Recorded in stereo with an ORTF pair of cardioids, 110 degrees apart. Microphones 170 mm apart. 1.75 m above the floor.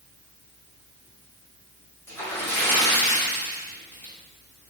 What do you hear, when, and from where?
2.1 s a splash: 15° left, 1.4 m